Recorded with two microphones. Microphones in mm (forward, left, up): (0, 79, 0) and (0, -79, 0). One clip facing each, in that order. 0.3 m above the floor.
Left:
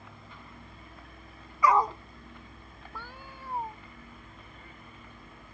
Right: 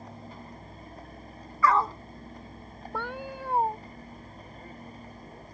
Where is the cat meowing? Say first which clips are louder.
Right 12 dB; 80° right.